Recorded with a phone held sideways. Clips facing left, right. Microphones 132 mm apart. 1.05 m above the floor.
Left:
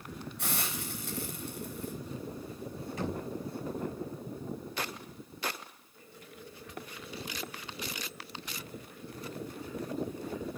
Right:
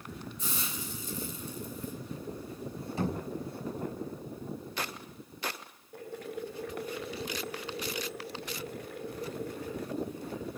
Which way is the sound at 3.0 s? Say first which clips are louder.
Right 3 dB; 30° right (ahead or behind).